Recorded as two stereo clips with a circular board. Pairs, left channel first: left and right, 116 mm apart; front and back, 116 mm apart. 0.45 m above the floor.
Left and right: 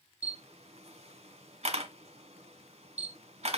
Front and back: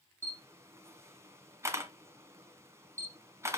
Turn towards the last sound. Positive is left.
turn(degrees=-115)